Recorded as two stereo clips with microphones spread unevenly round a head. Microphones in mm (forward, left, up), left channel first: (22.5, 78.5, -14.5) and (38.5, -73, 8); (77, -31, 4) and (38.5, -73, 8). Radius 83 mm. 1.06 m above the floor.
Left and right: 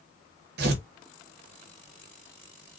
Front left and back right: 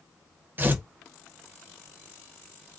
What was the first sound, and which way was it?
Tearing paper, 80° right.